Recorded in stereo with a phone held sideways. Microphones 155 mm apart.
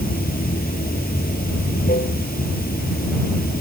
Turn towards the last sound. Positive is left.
turn(degrees=75)  # may be behind; listen again after turning